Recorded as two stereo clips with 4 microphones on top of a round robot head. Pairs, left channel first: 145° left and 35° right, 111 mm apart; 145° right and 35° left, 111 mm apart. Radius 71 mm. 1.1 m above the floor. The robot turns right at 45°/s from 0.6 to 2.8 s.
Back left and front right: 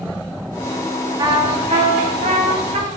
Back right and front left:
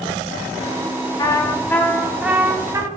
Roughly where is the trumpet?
Right.